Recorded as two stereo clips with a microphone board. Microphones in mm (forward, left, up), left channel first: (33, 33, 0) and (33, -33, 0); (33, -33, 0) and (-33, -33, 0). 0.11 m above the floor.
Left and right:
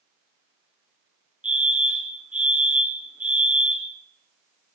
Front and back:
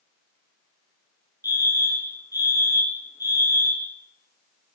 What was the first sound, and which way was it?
A fire alarm, 20° right.